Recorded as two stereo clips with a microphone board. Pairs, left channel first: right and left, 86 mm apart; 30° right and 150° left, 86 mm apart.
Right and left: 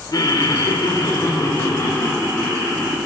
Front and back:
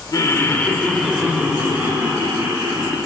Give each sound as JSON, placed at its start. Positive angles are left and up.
{"t": 0.1, "sound": "laughter", "azimuth_deg": -65, "distance_m": 1.8}